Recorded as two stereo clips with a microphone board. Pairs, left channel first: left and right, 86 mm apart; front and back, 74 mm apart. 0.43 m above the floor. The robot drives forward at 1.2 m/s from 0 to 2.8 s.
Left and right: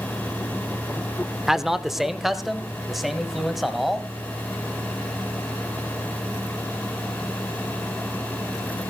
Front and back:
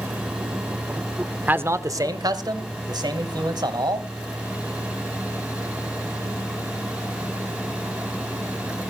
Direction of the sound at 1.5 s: 165° right.